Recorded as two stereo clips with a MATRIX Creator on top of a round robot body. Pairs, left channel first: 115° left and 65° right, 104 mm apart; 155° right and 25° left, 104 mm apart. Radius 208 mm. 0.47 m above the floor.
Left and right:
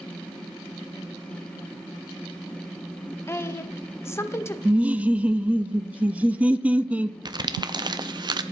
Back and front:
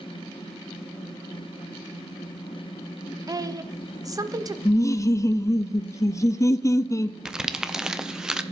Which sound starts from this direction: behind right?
Laughter, at 4.7 s.